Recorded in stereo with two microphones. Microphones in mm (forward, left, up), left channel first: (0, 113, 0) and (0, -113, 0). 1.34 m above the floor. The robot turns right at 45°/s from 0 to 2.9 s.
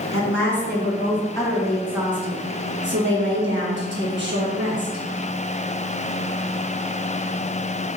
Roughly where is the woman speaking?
Left.